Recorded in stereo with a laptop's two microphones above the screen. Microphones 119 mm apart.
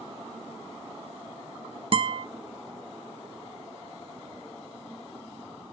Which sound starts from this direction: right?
A guitar, at 1.9 s.